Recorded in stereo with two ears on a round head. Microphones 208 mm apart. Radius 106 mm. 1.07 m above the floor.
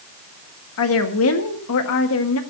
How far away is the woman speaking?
About 1.5 m.